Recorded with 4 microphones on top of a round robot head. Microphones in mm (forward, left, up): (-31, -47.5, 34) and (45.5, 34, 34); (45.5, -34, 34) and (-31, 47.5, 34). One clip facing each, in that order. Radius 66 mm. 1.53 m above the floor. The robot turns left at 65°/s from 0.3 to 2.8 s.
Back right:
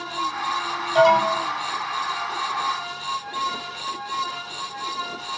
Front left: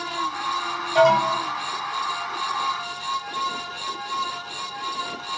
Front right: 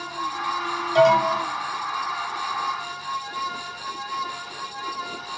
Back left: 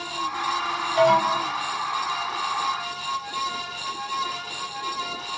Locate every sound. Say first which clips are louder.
0.9 s an alarm: back right 1 dB, front right 2 dB; 55° right, 7.5 m; by 1.4 s 85° right, 7.5 m